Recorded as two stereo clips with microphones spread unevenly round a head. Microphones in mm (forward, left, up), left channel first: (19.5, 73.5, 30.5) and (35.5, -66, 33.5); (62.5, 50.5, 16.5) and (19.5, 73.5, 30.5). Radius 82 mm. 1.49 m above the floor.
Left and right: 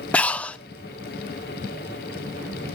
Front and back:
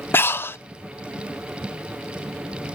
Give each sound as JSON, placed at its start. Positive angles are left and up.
{"t": 0.1, "sound": "breathing", "azimuth_deg": 15, "distance_m": 0.7}